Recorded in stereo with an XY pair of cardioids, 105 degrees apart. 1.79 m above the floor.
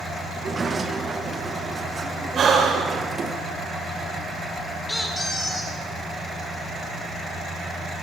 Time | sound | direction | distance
0.3 | a sliding door | 30° right | 1.8 m
2.4 | breathing | 50° right | 5 m
4.9 | a squeak | 15° left | 3 m